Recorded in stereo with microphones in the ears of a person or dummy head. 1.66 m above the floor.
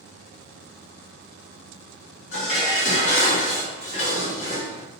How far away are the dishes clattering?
About 1.9 m.